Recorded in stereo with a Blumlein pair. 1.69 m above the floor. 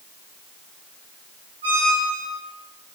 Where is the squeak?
65° right, 6 m.